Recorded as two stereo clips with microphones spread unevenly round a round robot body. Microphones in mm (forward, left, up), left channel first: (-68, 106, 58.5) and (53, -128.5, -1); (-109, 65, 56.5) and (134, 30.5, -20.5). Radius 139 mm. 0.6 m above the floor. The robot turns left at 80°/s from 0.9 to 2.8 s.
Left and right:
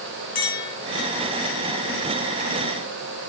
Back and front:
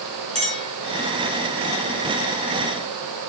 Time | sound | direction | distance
0.3 | a clink | 55° left | 5 m